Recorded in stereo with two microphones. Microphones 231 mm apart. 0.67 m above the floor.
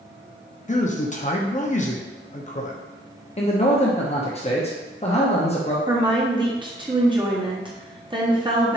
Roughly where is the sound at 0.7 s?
Left.